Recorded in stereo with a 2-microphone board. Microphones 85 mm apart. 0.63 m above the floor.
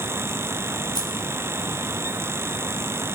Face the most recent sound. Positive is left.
turn(degrees=-45)  # may be behind; listen again after turning